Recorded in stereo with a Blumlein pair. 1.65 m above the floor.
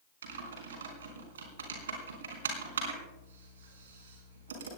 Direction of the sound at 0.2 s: 60° right.